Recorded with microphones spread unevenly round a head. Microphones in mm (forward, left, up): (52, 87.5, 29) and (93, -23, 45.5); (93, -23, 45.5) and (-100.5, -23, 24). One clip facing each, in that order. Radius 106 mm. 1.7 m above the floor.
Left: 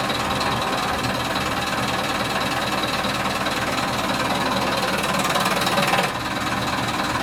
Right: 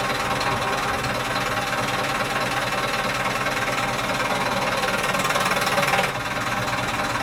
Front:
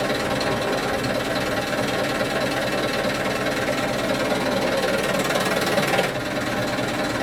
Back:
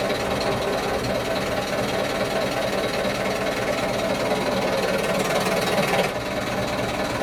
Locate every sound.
0.0 s an engine running: 50° left, 1.1 m